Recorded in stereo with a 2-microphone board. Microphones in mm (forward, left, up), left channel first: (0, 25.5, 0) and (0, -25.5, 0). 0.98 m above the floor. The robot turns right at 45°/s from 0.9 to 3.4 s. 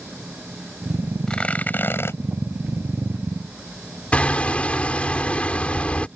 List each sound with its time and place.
1.3 s tearing paper: 15° left; by 2.2 s 55° left
4.1 s hammering: 25° left (ahead or behind)